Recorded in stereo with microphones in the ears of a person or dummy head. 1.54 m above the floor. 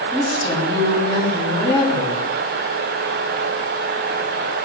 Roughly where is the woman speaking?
Centre.